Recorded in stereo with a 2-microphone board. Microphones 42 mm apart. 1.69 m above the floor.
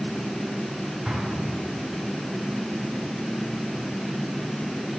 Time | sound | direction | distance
1.1 | an explosion | 20° right (ahead or behind) | 5 m